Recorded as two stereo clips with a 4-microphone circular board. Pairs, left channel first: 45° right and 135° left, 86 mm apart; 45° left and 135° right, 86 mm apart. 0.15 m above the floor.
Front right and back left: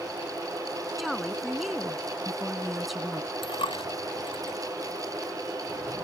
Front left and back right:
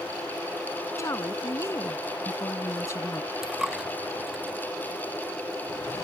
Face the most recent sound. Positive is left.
turn(degrees=-50)